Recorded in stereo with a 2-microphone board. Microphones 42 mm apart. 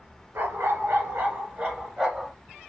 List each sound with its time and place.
0.3 s a dog barking: 75° right (ahead or behind), 1.3 m; by 2.3 s 10° right (ahead or behind), 1.7 m